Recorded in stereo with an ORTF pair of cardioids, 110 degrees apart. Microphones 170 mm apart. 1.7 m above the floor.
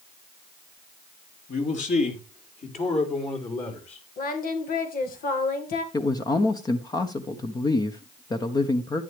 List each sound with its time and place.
1.5 s a man speaking: 50° left, 3.5 m; by 4.0 s 40° left, 5.5 m
4.2 s singing: 60° left, 2.5 m
5.9 s a man speaking: 25° left, 1.2 m